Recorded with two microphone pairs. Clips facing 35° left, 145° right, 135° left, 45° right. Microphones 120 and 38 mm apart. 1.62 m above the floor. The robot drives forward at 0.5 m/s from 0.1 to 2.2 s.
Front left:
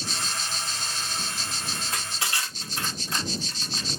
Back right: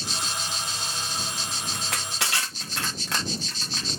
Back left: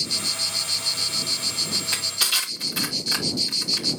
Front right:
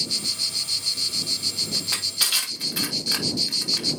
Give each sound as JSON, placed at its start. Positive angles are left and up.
{"t": 1.7, "sound": "crushing", "azimuth_deg": -130, "distance_m": 3.0}